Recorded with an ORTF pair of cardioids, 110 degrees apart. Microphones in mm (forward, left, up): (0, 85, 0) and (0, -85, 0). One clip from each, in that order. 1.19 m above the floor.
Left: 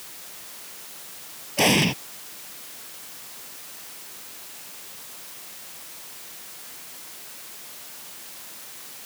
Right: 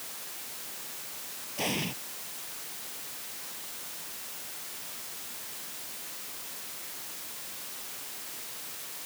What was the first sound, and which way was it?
An explosion, 70° left.